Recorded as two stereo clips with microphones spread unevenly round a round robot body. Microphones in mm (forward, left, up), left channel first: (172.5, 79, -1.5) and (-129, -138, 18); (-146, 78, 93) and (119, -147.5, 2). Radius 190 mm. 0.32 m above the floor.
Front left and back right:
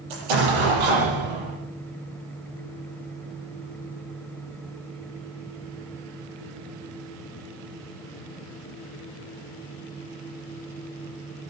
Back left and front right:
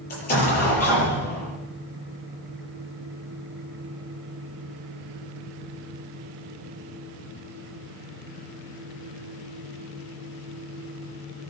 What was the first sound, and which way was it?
An explosion, 155° right.